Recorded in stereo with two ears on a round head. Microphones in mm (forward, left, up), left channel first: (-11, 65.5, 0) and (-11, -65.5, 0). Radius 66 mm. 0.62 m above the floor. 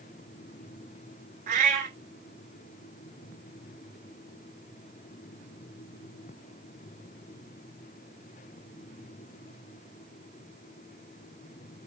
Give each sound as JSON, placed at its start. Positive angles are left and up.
{"t": 1.5, "sound": "a cat meowing", "side_deg": -55, "distance_m": 0.9}